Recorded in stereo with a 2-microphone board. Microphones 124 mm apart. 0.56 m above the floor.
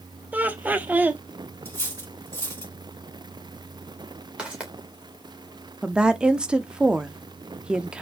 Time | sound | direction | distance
0.3 | laughter | 15° right (ahead or behind) | 0.8 m
1.6 | cutlery clinking | 20° left (ahead or behind) | 3 m
4.4 | footsteps | 5° right (ahead or behind) | 2.5 m
5.8 | a woman speaking | 5° right (ahead or behind) | 0.7 m